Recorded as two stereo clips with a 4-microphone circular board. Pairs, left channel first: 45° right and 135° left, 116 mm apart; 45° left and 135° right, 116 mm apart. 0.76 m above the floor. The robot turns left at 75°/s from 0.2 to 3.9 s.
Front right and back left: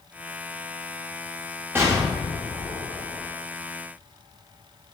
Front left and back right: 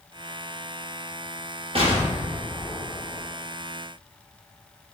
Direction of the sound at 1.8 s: 155° right.